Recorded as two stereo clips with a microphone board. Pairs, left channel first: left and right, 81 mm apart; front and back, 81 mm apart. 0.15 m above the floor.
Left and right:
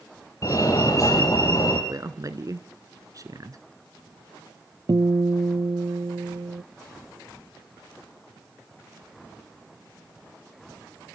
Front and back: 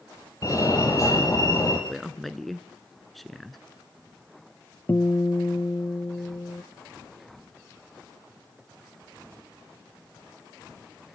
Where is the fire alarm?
45° left, 7 m.